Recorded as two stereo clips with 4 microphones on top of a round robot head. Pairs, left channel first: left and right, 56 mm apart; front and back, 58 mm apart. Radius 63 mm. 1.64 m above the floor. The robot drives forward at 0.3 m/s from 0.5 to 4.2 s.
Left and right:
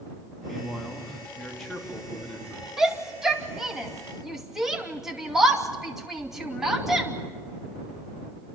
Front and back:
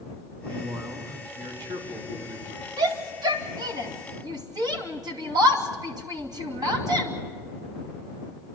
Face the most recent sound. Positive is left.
turn(degrees=-175)